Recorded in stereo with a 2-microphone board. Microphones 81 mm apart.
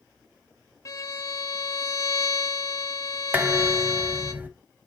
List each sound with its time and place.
0.8 s a violin: 45° left (ahead or behind), 0.8 m
3.3 s dishes clattering: 20° right (ahead or behind), 0.8 m